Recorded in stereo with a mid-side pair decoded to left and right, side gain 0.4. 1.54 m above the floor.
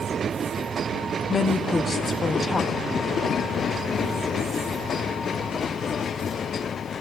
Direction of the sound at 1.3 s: 40° left.